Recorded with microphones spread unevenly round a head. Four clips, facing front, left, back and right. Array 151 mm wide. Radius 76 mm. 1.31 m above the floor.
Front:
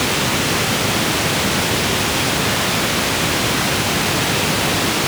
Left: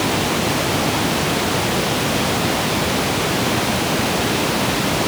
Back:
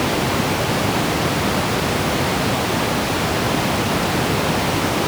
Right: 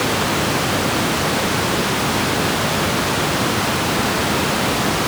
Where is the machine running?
No machine running in this recording.